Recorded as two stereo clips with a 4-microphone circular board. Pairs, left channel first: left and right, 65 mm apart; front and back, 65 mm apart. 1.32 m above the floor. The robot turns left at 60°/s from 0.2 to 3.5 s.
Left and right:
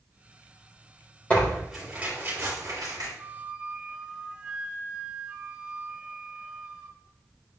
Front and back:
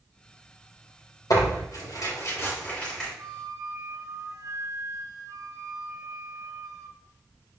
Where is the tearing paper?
20° left, 3.5 m; by 3.1 s 85° right, 3.5 m.